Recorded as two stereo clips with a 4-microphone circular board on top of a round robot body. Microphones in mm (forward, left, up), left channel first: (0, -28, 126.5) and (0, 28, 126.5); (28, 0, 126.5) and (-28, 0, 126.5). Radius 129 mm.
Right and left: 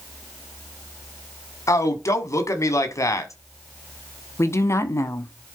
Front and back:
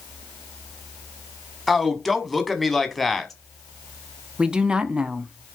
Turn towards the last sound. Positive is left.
turn(degrees=-110)